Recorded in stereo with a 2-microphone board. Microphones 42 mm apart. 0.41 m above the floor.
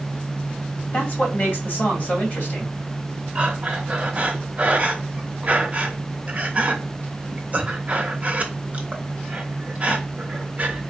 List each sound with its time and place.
0.9 s a man speaking: 40° left (ahead or behind), 2 m
3.4 s breathing: 35° right (ahead or behind), 0.8 m